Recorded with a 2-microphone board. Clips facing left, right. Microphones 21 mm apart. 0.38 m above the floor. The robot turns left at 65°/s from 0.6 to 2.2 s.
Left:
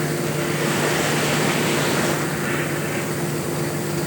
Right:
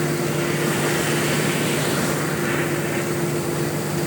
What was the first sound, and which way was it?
Only background noise.